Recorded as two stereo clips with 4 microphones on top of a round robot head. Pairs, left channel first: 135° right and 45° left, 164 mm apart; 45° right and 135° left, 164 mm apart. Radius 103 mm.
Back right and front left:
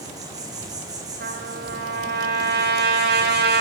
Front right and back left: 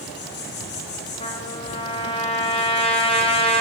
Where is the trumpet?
15° left, 3.5 m.